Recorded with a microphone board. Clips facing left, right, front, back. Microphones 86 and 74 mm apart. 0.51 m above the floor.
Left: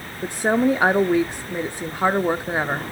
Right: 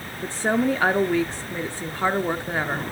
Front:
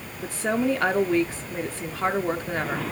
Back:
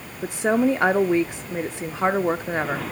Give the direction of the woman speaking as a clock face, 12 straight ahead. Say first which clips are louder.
Left 3 dB, back 4 dB; 7 o'clock.